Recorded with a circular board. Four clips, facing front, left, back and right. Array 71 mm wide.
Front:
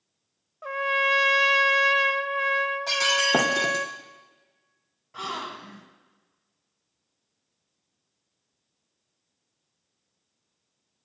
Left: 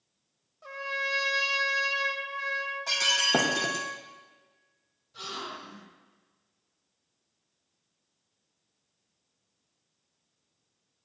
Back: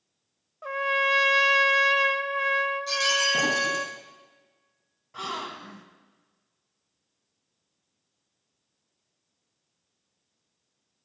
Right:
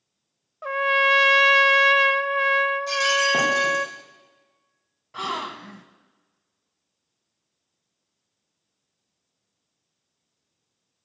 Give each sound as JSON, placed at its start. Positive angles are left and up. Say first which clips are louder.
{"t": 0.6, "sound": "a trumpet", "louder": "right 13 dB, front 1 dB", "azimuth_deg": -85, "distance_m": 0.9}
{"t": 2.9, "sound": "breaking glass", "louder": "right 7 dB, front 2 dB", "azimuth_deg": 25, "distance_m": 4.5}
{"t": 5.1, "sound": "a gasp", "louder": "right 10 dB, front 1 dB", "azimuth_deg": -85, "distance_m": 1.9}